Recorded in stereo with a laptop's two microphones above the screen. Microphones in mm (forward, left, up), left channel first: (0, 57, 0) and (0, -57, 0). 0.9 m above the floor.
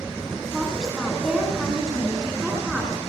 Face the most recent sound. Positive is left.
turn(degrees=-5)  # may be behind; listen again after turning